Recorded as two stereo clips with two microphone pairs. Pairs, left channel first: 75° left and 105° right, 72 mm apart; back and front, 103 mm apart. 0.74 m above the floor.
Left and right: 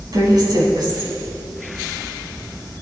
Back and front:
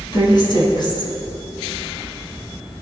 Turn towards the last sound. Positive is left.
turn(degrees=-135)